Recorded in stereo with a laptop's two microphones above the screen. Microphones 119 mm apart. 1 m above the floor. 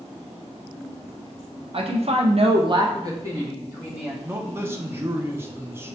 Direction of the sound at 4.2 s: 20° right (ahead or behind).